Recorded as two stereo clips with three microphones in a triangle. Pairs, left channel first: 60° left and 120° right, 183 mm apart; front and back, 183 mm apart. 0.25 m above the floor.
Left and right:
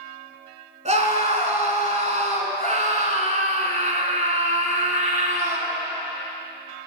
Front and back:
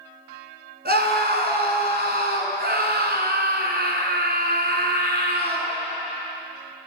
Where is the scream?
165° right, 2 m.